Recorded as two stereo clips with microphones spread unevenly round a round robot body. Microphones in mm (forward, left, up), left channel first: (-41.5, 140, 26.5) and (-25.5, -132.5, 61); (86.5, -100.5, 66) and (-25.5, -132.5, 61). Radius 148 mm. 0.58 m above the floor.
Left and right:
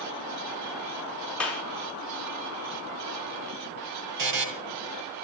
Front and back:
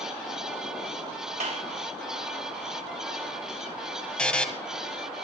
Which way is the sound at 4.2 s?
65° right.